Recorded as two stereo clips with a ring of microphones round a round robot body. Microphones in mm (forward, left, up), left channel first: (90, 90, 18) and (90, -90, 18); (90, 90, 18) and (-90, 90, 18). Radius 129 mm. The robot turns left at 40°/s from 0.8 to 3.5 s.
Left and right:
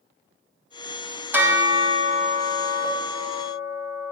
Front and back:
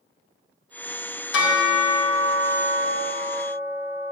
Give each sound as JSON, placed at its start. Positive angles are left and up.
{"t": 1.3, "sound": "a bell", "azimuth_deg": -10, "distance_m": 1.7}